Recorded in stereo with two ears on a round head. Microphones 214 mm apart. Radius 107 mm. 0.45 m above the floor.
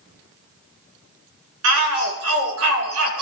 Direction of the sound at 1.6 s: 70° right (ahead or behind).